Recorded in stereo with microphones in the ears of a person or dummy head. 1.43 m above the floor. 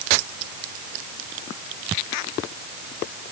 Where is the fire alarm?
I don't hear a fire alarm.